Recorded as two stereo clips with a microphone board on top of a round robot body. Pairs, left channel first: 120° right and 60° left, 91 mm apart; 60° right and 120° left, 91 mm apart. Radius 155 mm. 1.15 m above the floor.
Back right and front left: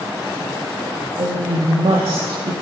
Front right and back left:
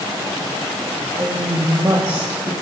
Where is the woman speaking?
70° left, 1.7 m.